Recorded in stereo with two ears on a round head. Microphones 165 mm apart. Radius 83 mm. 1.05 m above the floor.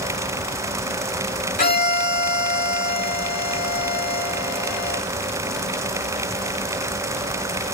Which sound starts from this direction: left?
A violin, at 1.6 s.